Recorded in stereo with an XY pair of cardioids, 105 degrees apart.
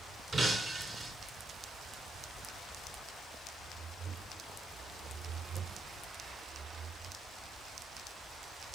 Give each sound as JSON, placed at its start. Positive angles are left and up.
{"t": 0.3, "sound": "breaking glass", "azimuth_deg": -30, "distance_m": 3.0}